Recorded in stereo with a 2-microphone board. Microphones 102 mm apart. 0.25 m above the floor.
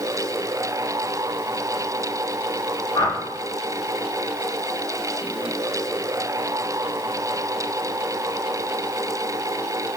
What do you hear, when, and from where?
3.0 s a whoosh: 40° left (ahead or behind), 0.6 m